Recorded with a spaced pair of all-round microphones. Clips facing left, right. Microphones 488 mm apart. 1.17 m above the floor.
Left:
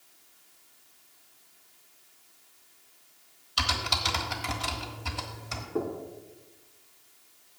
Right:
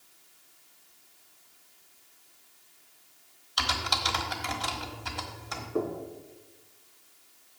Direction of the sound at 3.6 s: 45° left (ahead or behind).